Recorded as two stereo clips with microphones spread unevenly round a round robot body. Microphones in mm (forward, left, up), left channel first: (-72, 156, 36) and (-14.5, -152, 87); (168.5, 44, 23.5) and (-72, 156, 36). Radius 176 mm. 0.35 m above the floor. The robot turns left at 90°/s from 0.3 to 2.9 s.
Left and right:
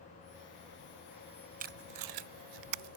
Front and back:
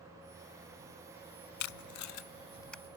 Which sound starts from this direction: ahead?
Tape being pulled, at 1.6 s.